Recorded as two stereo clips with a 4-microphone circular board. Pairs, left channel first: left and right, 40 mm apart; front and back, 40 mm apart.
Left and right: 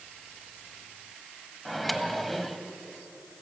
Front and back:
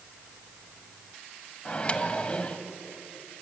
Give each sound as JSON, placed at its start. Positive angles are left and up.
{"t": 1.6, "sound": "a microwave", "azimuth_deg": 5, "distance_m": 1.2}